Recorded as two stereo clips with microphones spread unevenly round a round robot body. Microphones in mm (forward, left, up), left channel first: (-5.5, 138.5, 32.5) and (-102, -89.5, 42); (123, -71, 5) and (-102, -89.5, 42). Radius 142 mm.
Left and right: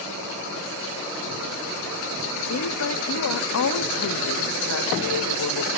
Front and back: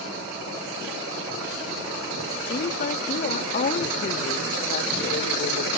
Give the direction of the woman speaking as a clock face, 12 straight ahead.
10 o'clock.